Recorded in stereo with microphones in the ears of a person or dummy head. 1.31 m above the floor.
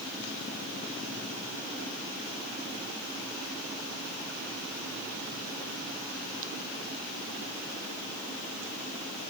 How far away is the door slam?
No door slam in this recording.